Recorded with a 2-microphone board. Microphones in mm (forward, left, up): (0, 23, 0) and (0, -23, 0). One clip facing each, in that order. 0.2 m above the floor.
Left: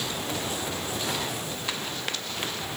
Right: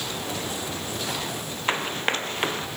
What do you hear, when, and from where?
1.7 s running footsteps: 40° right (ahead or behind)